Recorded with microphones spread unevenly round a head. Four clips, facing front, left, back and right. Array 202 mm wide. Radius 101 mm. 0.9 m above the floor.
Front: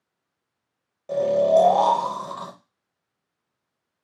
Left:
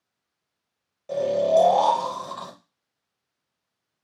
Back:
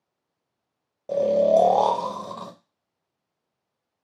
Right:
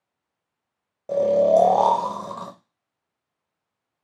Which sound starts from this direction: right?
Snoring, at 1.1 s.